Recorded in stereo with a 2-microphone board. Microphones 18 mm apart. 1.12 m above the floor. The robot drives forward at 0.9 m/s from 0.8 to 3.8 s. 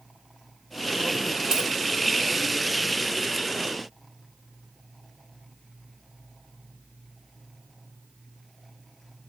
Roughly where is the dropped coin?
Right.